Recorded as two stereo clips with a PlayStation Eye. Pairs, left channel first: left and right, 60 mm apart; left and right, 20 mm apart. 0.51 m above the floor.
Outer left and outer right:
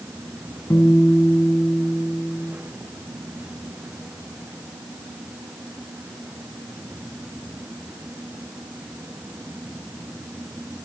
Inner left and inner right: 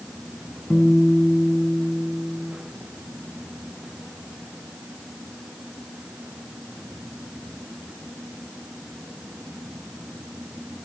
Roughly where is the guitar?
Left.